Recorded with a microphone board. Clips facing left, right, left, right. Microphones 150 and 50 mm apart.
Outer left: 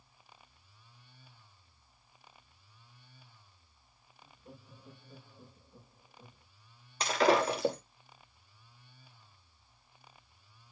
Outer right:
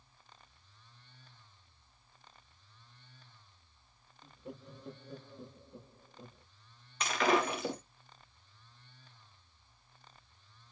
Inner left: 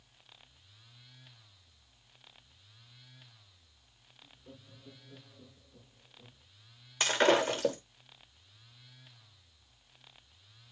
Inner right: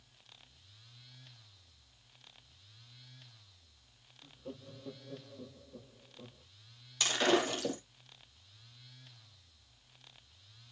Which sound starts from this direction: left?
Breaking glass, at 7.0 s.